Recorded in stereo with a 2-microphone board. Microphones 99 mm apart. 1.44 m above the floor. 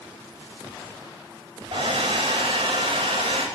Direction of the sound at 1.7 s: 80° right.